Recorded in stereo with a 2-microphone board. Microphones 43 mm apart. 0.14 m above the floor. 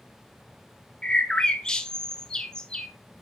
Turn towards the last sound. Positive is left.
turn(degrees=20)  # may be behind; listen again after turning